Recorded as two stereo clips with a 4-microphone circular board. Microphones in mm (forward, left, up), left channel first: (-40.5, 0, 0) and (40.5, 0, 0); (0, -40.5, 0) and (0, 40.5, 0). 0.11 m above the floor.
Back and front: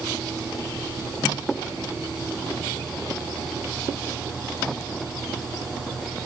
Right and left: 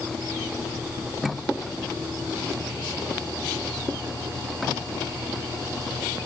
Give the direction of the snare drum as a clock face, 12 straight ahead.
I don't hear a snare drum.